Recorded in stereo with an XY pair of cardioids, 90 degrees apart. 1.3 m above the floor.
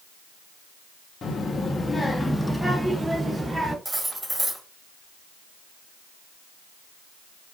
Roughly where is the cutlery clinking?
Ahead.